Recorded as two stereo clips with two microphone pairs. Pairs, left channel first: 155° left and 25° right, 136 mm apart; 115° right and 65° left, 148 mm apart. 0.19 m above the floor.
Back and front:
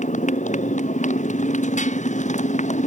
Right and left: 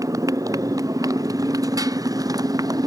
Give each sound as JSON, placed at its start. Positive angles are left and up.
{"t": 0.0, "sound": "a motorcycle", "azimuth_deg": 135}